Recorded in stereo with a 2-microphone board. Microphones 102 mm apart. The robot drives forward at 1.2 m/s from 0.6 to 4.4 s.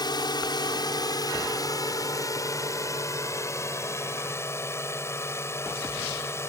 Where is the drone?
45° left (ahead or behind); by 6.5 s 25° left (ahead or behind).